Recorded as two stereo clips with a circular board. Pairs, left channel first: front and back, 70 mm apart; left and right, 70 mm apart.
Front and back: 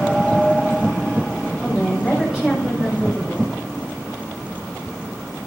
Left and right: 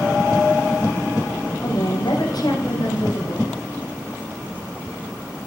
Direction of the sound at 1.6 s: 100° left.